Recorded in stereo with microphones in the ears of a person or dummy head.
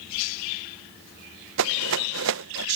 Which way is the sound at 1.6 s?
70° right (ahead or behind).